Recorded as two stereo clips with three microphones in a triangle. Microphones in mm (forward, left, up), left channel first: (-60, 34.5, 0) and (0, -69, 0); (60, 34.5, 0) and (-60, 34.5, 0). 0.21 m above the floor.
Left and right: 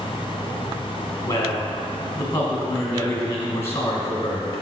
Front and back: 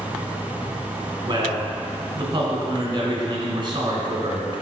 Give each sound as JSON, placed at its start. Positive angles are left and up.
{"t": 1.3, "sound": "a man speaking", "azimuth_deg": 175, "distance_m": 1.7}